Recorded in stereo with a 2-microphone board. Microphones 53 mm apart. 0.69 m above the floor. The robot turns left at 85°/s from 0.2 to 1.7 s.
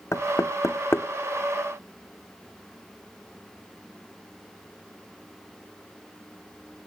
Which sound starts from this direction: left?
Knocking, at 0.1 s.